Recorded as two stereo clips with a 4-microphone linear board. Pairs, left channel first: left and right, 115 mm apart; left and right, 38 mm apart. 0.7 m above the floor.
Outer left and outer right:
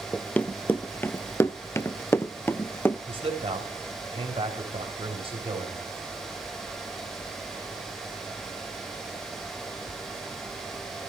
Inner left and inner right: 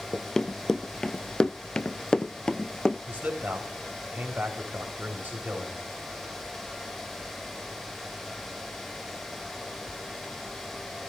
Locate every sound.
0.1 s running footsteps: 10° left (ahead or behind), 1.0 m; by 3.0 s 15° left (ahead or behind), 1.0 m
3.1 s a man speaking: 50° right (ahead or behind), 4 m